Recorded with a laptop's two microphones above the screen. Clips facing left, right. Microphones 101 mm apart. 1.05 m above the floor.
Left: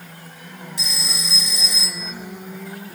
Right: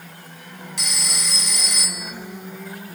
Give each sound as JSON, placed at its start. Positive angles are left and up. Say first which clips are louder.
{"t": 0.8, "sound": "a phone ringing", "louder": "right 1 dB", "side_deg": -65, "distance_m": 2.5}